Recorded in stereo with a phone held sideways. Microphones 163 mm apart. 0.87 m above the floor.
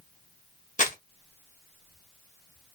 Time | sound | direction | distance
0.8 | crumpling | 50° left (ahead or behind) | 0.9 m